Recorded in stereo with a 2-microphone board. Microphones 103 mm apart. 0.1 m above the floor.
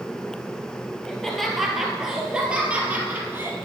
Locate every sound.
1.1 s laughter: 5° left (ahead or behind), 2.5 m; by 3.5 s 20° right (ahead or behind), 2.5 m